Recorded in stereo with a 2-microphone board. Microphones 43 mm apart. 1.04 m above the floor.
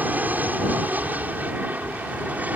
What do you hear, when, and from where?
0.0 s an aircraft: 40° right (ahead or behind)